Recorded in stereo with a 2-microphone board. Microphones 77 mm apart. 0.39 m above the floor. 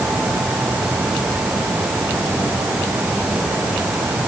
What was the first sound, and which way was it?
Only background noise.